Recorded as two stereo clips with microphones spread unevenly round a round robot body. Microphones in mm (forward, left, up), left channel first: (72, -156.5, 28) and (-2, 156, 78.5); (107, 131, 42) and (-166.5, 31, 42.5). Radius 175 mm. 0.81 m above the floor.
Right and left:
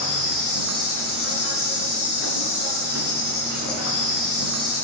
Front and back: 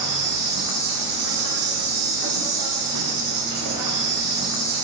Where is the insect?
125° right, 1.5 m.